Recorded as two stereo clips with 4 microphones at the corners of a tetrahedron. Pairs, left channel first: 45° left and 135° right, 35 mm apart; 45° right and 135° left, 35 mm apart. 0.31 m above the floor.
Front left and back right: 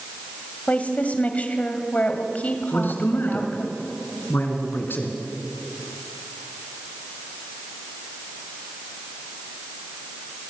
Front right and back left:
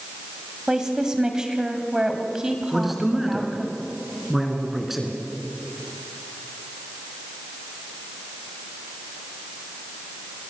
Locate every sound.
0.7 s a woman speaking: 70° left, 2 m
2.7 s a man speaking: 50° left, 3.5 m